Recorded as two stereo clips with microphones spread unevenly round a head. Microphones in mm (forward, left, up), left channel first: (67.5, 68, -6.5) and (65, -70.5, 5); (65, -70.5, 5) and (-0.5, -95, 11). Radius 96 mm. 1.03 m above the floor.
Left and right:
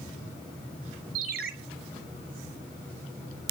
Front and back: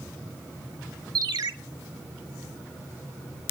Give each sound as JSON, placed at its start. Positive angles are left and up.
{"t": 1.1, "sound": "a ringtone", "azimuth_deg": -140, "distance_m": 1.2}